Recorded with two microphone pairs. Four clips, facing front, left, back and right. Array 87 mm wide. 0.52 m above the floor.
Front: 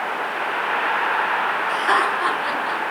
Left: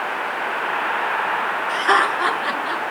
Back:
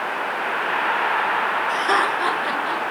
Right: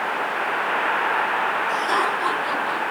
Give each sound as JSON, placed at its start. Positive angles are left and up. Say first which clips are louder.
{"t": 1.7, "sound": "laughter", "louder": "left 3 dB, front 1 dB", "azimuth_deg": 55, "distance_m": 7.5}